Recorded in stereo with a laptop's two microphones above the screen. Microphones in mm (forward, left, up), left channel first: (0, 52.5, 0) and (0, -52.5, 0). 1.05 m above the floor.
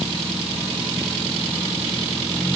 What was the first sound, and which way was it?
Only background noise.